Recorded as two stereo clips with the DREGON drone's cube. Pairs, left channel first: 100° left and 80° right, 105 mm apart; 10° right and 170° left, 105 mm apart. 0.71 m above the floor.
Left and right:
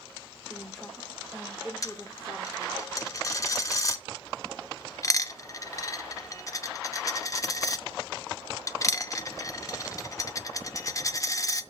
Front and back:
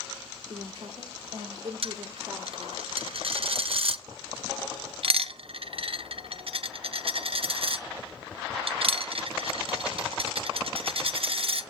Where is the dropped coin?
155° left, 0.5 m.